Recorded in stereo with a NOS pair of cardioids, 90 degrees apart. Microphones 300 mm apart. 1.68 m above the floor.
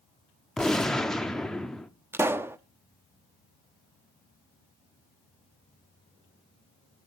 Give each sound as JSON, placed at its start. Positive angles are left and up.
{"t": 0.6, "sound": "a gunshot", "azimuth_deg": 0, "distance_m": 0.6}
{"t": 2.1, "sound": "a pop", "azimuth_deg": -10, "distance_m": 0.5}